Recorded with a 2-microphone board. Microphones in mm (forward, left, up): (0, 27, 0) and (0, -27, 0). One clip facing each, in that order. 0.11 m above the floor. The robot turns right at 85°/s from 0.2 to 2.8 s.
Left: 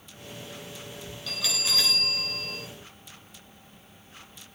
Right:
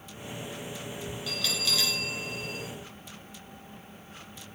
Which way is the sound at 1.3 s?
5° right.